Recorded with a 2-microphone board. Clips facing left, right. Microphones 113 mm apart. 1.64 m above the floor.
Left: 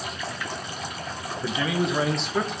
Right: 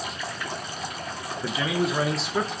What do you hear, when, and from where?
1.4 s a man speaking: centre (ahead or behind), 2 m